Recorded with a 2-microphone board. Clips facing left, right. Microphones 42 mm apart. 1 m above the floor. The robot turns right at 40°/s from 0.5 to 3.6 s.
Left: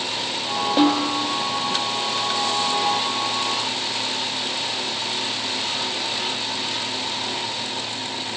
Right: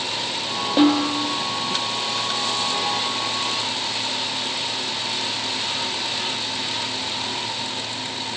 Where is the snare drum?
Centre (ahead or behind), 0.7 m; by 1.2 s 15° right (ahead or behind), 0.7 m.